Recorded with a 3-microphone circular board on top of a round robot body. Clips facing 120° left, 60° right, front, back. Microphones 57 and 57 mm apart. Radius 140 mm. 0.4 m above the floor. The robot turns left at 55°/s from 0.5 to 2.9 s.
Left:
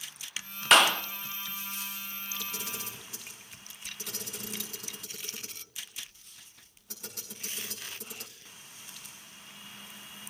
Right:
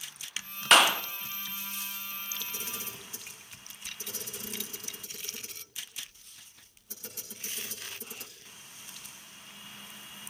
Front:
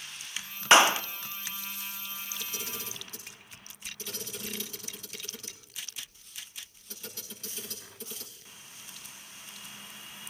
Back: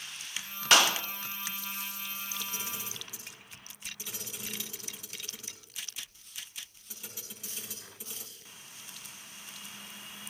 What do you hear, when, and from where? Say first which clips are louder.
0.7 s a clap: even, front 5 dB; 30° left, 0.7 m; by 1.0 s 15° left, 0.7 m
2.4 s a camera shutter: left 1 dB, even; 125° left, 6.5 m; by 8.3 s 100° left, 6.5 m